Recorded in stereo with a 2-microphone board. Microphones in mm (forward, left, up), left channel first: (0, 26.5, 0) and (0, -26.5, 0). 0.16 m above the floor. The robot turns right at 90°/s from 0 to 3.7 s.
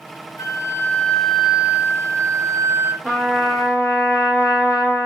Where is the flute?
95° left, 1.6 m; by 2.9 s 35° right, 1.6 m.